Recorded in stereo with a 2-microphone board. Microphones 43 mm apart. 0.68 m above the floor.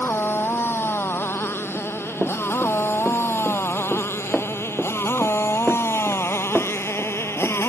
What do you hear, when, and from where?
0.0 s a motorcycle: 65° left (ahead or behind); by 7.7 s 85° left
1.7 s running footsteps: 5° left (ahead or behind); by 7.7 s 15° right (ahead or behind)